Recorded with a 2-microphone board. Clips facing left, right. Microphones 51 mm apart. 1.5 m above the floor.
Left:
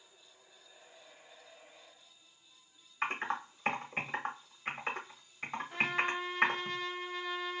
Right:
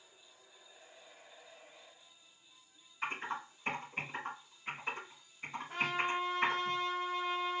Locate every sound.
3.0 s typing on a keyboard: 55° left (ahead or behind), 1.0 m
5.7 s a trumpet: 45° right (ahead or behind), 1.6 m